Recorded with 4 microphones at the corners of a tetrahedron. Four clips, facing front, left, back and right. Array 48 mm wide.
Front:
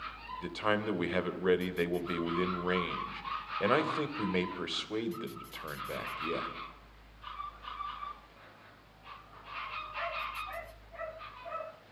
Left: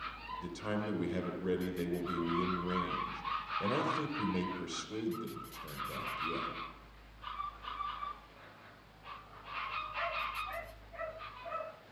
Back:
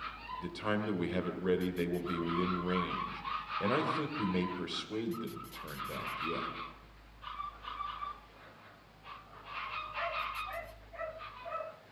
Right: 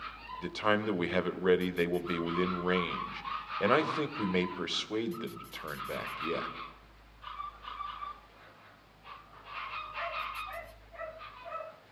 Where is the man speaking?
55° right, 3 m.